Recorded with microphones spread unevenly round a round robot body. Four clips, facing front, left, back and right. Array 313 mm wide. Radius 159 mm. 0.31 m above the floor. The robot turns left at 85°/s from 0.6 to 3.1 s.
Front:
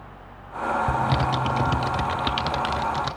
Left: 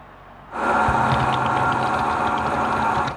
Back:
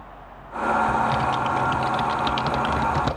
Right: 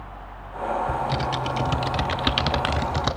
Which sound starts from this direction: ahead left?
Typing on a keyboard, at 0.9 s.